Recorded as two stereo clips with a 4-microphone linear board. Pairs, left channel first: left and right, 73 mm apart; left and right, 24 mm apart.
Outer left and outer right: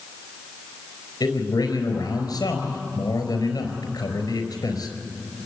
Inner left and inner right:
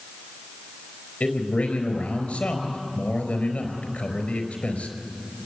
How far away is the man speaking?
About 4.5 m.